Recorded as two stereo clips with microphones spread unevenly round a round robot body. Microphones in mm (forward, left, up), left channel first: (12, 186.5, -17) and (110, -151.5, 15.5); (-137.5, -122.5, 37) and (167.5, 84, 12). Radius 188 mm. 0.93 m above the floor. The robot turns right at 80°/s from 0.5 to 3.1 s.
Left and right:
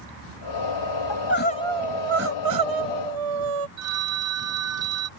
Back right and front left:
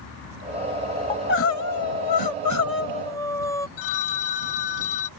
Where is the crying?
135° left; by 3.7 s 65° right.